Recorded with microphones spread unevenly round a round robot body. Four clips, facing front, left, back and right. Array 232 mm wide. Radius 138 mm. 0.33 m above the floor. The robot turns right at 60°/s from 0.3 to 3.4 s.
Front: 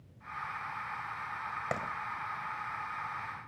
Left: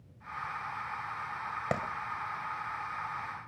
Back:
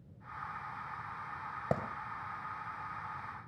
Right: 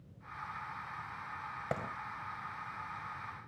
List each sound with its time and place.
1.7 s a clap: 145° left, 1.9 m; by 1.8 s 150° left, 1.9 m